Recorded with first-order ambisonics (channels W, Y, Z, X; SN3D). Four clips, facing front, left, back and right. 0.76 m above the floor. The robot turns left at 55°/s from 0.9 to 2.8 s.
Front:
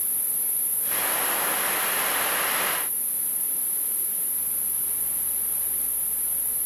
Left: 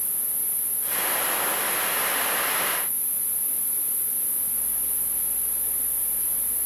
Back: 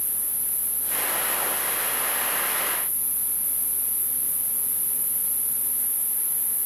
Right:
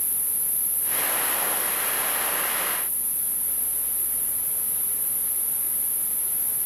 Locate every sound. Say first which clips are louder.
0.0 s an insect: right 1 dB, even; 75° right, 1.9 m; by 6.7 s 175° right, 1.9 m